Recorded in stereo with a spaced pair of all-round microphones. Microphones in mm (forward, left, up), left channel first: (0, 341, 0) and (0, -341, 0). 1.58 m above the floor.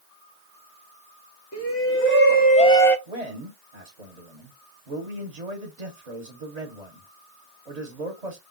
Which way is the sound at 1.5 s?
20° left (ahead or behind).